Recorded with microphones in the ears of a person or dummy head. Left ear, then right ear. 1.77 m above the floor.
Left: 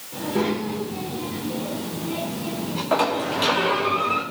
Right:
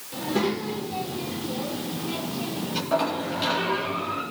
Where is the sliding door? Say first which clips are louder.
Left 4 dB; 25° left (ahead or behind), 3 m.